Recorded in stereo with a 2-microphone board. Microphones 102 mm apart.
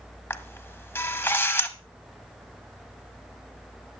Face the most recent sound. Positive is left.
turn(degrees=20)  # may be behind; listen again after turning